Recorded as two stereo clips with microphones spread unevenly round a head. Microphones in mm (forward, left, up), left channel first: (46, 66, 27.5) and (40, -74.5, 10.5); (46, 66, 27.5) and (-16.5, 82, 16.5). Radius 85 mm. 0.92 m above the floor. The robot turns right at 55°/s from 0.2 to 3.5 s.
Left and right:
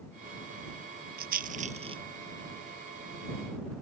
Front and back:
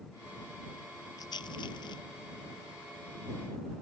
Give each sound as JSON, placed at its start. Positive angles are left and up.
{"t": 1.2, "sound": "a rattle", "azimuth_deg": -80}